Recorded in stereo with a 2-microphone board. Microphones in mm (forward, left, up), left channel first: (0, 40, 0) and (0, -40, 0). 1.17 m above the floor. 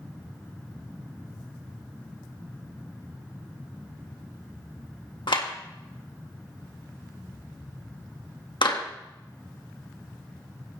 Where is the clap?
85° left, 1.8 m.